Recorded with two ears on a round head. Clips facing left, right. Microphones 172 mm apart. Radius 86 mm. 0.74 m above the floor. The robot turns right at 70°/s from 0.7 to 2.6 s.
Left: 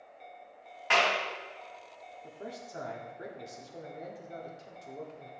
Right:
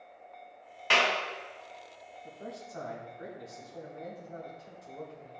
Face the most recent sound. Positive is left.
turn(degrees=35)  # may be behind; listen again after turning